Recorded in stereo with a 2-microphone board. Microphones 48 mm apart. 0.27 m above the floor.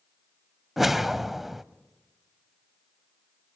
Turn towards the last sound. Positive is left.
turn(degrees=-5)  # may be behind; listen again after turning